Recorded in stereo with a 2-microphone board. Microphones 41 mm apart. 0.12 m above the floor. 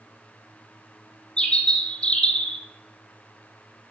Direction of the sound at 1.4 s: 30° left (ahead or behind).